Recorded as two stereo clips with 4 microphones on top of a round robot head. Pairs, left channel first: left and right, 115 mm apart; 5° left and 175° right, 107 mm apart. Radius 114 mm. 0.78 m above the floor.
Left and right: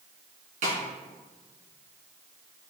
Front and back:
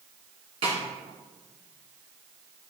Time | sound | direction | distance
0.6 | a snare drum | 125° right | 2.5 m